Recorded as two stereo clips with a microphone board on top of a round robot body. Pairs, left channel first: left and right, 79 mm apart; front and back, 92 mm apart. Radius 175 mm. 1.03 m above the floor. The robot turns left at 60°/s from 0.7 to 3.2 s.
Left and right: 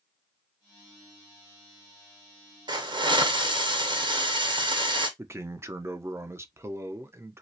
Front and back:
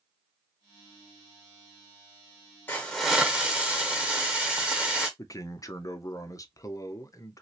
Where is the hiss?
65° right, 1.0 m; by 5.1 s 95° right, 1.0 m.